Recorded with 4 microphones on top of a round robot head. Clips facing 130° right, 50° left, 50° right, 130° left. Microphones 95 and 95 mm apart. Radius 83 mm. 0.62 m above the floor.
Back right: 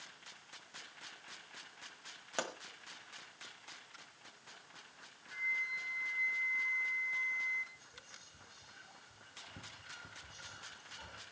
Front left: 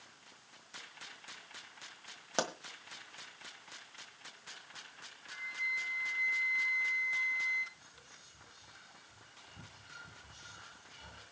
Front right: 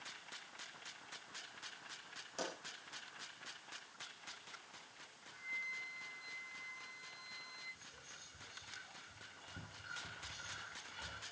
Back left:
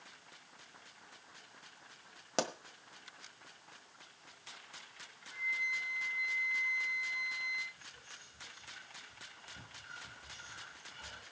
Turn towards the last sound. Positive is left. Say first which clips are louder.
# back right 1 dB, back left 3 dB
turn(degrees=-125)